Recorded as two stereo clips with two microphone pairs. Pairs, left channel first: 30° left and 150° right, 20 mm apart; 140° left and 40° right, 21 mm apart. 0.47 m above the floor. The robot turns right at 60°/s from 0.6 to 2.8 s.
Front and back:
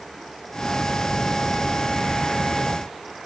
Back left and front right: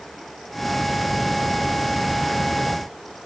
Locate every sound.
Only background noise.